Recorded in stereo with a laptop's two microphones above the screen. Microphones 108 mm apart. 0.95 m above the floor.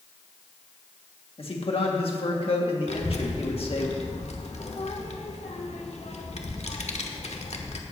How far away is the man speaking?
About 1.7 m.